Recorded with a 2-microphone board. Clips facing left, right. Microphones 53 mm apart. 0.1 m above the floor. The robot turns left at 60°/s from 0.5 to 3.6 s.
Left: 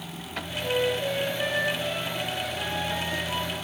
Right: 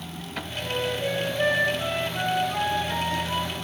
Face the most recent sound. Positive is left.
turn(degrees=-175)